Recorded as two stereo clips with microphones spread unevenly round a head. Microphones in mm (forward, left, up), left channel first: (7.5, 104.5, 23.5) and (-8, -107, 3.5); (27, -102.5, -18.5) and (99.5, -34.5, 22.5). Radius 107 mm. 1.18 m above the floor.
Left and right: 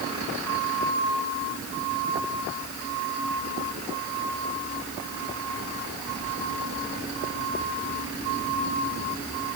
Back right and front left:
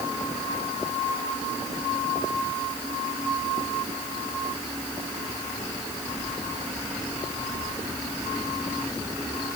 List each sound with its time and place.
Only background noise.